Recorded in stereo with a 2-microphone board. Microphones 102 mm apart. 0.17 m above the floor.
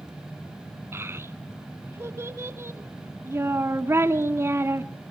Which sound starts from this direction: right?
A child speaking, at 0.9 s.